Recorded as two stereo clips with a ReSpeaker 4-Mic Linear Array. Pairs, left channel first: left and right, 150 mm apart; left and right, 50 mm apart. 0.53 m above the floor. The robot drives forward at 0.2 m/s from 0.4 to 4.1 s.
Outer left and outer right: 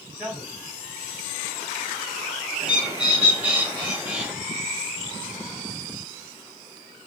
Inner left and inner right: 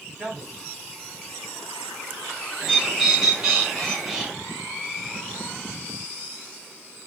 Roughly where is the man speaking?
Centre.